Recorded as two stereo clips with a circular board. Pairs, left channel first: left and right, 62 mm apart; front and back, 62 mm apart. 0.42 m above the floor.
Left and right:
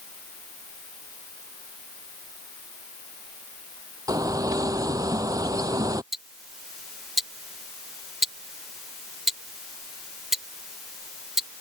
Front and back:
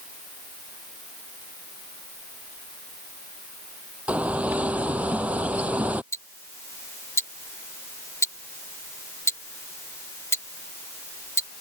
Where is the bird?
110° right.